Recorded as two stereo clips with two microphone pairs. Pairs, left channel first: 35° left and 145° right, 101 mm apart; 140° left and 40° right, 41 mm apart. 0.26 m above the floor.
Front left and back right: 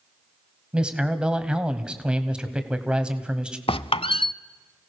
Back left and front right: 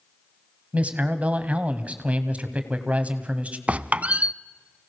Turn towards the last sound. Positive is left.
turn(degrees=20)